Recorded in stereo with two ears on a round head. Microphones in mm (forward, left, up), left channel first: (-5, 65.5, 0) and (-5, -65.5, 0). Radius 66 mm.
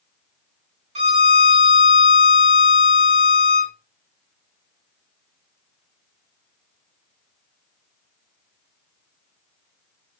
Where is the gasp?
I don't hear a gasp.